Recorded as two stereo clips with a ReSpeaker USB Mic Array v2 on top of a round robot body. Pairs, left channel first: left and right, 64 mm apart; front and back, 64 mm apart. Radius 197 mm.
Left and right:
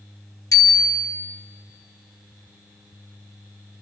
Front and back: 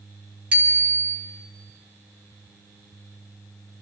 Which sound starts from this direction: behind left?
A bicycle bell, at 0.5 s.